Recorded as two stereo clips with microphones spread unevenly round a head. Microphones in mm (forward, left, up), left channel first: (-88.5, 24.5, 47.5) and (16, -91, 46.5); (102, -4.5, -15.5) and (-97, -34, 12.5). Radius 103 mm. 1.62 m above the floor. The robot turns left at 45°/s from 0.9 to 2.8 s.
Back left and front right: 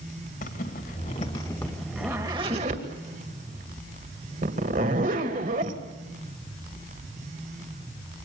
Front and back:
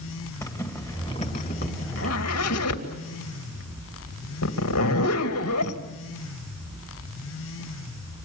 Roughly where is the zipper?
Left.